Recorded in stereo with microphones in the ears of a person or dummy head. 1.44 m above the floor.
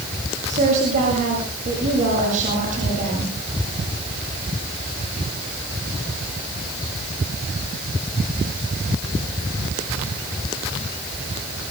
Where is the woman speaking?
50° right (ahead or behind), 7.5 m.